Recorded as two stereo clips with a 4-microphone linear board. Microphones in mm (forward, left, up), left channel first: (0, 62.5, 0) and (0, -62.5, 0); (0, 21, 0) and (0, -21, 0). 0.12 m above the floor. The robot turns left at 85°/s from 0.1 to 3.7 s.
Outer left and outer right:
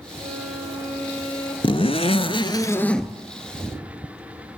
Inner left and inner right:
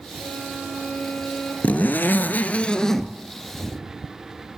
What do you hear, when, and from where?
0.2 s a violin: 85° right, 4 m; by 1.5 s 160° left, 4 m
1.6 s a zipper: 120° left, 0.5 m; by 3.1 s 5° right, 0.5 m